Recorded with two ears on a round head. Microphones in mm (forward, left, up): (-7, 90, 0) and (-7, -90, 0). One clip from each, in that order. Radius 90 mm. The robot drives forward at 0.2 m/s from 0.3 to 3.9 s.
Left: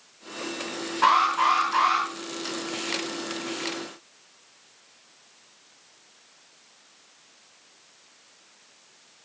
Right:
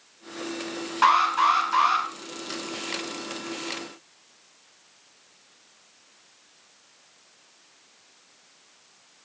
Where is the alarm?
50° right (ahead or behind), 5.5 m.